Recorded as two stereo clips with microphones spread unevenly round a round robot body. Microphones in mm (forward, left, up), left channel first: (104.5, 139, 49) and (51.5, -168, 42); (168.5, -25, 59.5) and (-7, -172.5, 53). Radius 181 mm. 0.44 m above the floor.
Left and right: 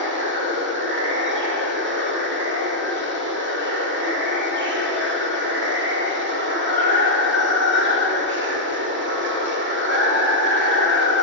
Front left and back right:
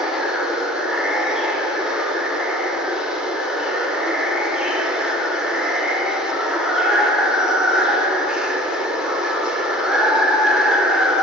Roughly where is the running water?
Ahead right.